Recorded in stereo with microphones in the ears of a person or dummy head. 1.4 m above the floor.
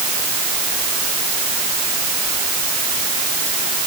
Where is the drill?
No drill in this recording.